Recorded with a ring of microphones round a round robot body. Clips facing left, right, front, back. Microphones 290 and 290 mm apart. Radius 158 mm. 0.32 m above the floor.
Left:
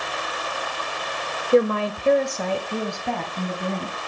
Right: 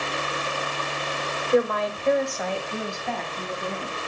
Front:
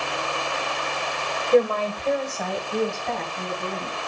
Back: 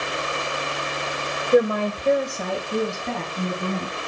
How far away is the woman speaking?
About 1.0 m.